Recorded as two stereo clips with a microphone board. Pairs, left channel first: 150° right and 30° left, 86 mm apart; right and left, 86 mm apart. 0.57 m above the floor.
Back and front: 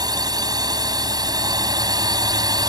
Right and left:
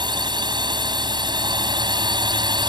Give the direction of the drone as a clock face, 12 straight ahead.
10 o'clock.